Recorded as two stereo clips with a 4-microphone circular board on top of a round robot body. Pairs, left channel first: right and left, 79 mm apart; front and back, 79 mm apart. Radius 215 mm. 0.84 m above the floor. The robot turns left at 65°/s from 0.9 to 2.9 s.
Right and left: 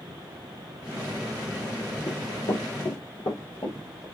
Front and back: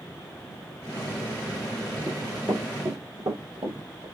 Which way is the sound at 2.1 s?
80° right.